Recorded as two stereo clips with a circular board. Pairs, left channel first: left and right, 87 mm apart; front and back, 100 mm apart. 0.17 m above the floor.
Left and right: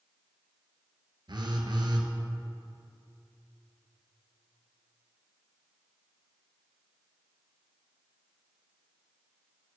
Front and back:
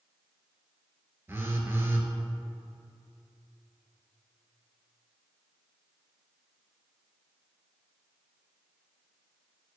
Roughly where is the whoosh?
I don't hear a whoosh.